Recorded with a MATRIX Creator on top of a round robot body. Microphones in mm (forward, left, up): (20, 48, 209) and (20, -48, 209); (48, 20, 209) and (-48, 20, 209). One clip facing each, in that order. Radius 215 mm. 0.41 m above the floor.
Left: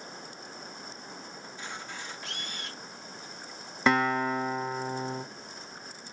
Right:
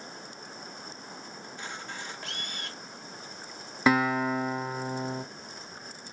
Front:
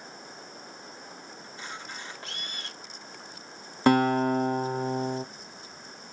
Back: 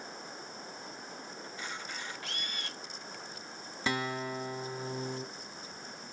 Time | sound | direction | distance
1.4 | a camera shutter | 55° right | 2.5 m
3.9 | a guitar | 5° right | 0.7 m